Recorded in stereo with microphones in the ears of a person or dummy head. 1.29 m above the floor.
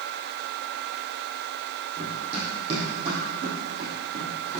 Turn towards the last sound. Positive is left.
turn(degrees=-20)  # may be behind; listen again after turning